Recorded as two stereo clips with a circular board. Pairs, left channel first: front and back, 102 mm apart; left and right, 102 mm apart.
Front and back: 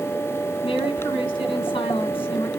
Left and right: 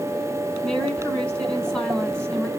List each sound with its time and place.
0.6 s a woman speaking: 10° left, 2.5 m